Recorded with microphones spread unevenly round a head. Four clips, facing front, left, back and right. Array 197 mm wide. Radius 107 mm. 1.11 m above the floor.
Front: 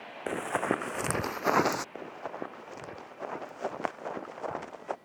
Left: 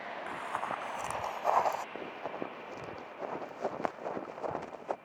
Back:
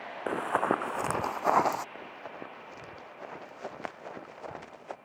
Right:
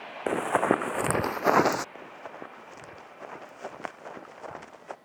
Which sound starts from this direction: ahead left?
Running footsteps, at 1.9 s.